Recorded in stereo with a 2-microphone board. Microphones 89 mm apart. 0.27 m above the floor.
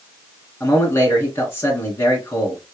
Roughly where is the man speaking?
Left.